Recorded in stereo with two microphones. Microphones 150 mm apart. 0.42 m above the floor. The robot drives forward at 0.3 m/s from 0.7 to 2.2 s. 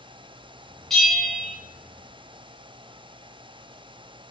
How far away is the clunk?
No clunk in this recording.